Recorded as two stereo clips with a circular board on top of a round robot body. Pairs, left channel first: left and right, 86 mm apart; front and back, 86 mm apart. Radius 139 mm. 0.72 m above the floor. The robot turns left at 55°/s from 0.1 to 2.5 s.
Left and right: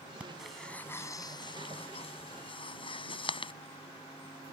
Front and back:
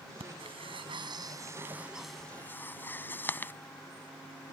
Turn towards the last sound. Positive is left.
turn(degrees=70)